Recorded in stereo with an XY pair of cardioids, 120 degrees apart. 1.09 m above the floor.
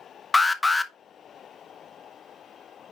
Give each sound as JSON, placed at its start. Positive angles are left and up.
{"t": 0.3, "sound": "an alarm", "azimuth_deg": 20, "distance_m": 0.7}